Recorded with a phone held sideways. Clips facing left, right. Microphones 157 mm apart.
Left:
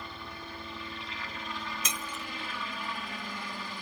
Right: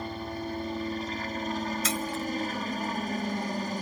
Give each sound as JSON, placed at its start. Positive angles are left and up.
{"t": 0.0, "sound": "a helicopter", "side_deg": -45}
{"t": 1.8, "sound": "breaking glass", "side_deg": 20}